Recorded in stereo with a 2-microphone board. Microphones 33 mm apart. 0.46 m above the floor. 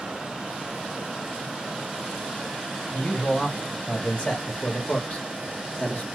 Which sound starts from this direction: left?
A man speaking, at 2.9 s.